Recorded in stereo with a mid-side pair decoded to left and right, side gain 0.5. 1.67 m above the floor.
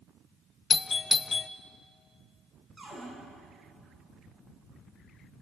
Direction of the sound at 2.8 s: 25° right.